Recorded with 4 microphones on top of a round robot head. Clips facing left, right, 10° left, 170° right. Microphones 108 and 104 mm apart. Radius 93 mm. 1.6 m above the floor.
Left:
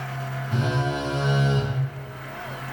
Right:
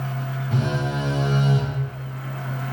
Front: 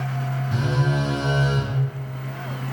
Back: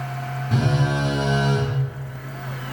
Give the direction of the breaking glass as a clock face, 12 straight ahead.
No breaking glass in this recording.